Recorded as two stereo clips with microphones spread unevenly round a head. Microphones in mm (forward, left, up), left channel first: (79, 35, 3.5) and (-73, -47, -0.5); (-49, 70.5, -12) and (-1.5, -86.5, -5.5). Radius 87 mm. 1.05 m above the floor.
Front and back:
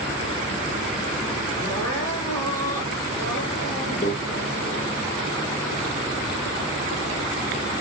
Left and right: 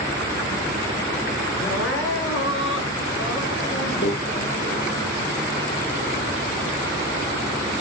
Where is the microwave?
80° left, 1.3 m.